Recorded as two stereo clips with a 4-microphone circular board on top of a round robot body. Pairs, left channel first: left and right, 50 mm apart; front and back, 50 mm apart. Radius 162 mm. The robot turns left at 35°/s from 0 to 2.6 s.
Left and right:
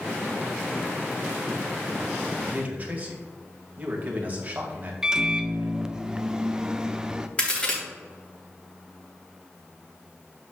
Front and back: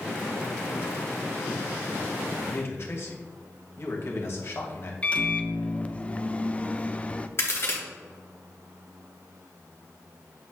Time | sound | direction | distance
2.4 | a man speaking | 25° right | 2 m
5.0 | a microwave | 30° right | 0.8 m
7.4 | a crack | 25° left | 3 m